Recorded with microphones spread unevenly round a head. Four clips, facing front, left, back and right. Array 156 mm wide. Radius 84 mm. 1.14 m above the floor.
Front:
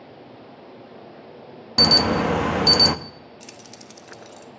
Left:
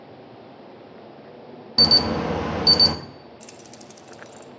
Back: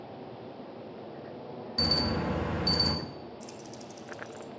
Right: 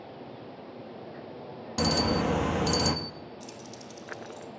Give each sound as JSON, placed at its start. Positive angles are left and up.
{"t": 1.8, "sound": "an alarm", "azimuth_deg": 15, "distance_m": 0.8}
{"t": 3.4, "sound": "keys jangling", "azimuth_deg": 30, "distance_m": 1.5}